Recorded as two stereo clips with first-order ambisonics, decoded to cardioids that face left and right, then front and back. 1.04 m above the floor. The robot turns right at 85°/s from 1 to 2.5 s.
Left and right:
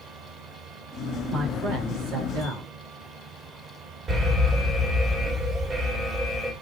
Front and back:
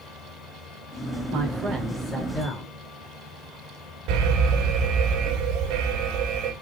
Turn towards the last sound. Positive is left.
turn(degrees=-160)